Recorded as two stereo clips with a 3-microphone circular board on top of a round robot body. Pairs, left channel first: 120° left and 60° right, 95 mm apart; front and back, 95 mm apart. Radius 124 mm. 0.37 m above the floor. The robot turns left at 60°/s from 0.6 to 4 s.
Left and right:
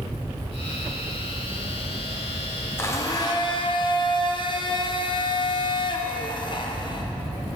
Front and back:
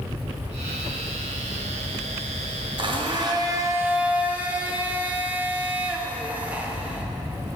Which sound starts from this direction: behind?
A blender, at 2.8 s.